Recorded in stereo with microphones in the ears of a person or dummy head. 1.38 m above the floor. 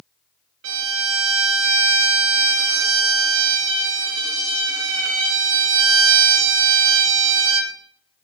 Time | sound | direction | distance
0.6 | a violin | 80° right | 0.9 m